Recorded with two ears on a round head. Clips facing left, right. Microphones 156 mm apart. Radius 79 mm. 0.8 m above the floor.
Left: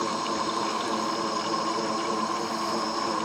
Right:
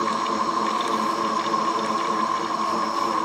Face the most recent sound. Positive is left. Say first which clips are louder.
# right 4 dB
turn(degrees=20)  # may be behind; listen again after turning